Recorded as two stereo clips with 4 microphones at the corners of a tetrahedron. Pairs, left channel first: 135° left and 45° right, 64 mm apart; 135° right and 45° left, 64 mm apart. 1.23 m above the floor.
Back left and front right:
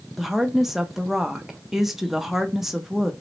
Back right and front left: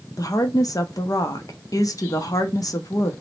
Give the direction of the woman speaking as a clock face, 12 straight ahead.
4 o'clock.